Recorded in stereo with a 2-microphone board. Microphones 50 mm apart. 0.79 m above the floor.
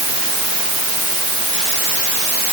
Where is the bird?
I don't hear a bird.